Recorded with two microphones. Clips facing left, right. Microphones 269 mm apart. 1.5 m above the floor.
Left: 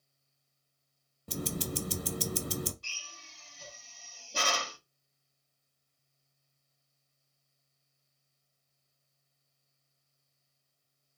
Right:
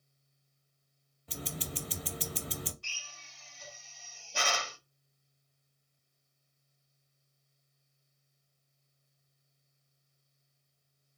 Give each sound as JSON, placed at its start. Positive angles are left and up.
{"t": 1.3, "sound": "ticking", "side_deg": 50, "distance_m": 0.5}
{"t": 2.8, "sound": "a drill", "side_deg": 40, "distance_m": 1.3}